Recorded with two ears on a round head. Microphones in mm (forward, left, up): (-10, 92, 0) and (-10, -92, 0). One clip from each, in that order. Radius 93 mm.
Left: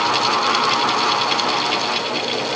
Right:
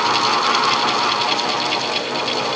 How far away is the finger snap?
No finger snap in this recording.